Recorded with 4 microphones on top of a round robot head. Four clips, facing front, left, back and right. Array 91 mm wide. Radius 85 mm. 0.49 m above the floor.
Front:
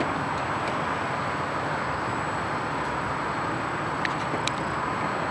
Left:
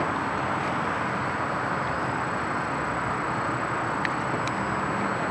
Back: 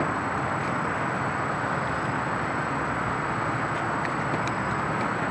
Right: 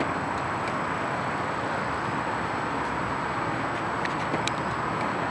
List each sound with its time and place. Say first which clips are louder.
0.0 s an insect: left 1 dB, even; 140° left, 3 m